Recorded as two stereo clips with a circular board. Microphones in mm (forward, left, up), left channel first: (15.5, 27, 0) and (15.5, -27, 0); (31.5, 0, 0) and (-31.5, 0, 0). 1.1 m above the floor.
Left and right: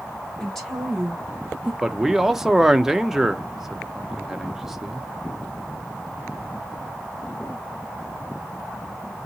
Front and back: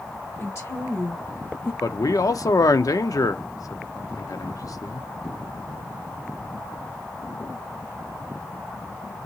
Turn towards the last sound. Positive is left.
turn(degrees=-10)